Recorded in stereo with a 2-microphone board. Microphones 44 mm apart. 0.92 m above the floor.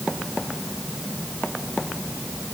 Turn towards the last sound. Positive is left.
No sound to turn to.